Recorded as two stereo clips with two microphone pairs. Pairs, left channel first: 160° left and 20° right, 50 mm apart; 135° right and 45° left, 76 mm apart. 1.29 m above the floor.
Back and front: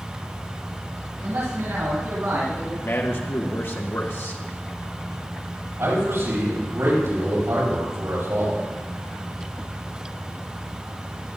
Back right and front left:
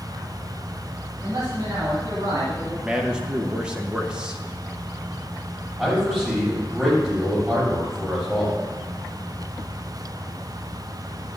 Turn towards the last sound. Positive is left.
turn(degrees=-40)